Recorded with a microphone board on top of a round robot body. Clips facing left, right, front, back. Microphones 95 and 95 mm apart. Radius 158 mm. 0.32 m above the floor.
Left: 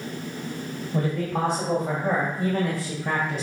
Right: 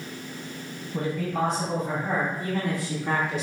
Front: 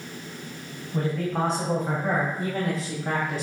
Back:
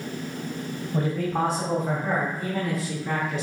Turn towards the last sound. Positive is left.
turn(degrees=50)